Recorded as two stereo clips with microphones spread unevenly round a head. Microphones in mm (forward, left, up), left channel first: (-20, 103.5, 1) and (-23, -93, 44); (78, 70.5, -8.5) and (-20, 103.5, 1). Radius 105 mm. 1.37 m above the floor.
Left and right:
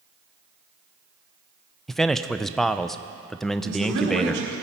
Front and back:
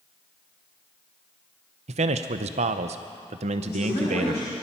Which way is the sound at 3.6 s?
75° right.